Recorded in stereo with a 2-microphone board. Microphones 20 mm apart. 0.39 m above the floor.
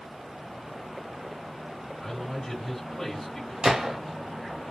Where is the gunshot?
45° right (ahead or behind), 0.9 m.